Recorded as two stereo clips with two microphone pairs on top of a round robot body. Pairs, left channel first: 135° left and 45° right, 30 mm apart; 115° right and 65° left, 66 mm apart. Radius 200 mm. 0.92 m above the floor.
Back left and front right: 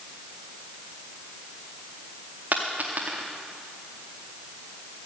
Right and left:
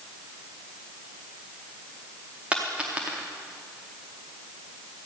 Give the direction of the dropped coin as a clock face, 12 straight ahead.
12 o'clock.